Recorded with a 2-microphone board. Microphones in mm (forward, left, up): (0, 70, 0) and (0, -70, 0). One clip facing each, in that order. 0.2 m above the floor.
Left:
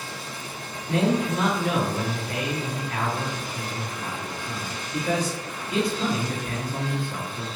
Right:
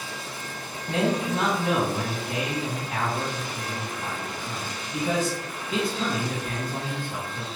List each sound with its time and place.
0.9 s a man speaking: 25° right (ahead or behind), 1.6 m